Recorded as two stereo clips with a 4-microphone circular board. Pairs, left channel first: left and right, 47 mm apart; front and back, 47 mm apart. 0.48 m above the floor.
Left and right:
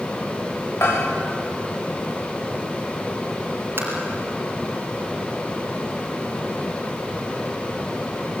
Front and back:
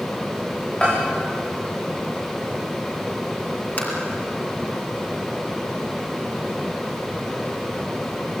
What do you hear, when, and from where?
0.8 s a bell: 70° left, 8.5 m
3.8 s tapping: 50° right, 4.5 m